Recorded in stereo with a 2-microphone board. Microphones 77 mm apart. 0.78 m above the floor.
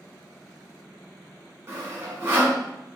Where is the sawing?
35° right (ahead or behind), 1.2 m.